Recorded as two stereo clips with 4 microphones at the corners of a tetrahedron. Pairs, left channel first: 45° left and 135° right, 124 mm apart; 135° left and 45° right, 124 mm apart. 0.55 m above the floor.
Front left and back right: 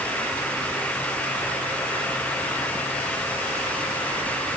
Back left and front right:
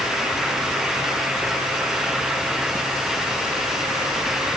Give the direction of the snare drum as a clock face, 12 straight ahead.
I don't hear a snare drum.